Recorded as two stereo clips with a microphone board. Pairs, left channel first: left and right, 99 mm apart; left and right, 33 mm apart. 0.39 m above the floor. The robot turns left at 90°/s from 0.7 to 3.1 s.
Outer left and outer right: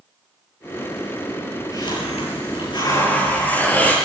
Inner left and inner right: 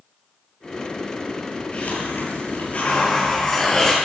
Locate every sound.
1.7 s a hiss: 140° left, 9 m; by 4.0 s 20° left, 9 m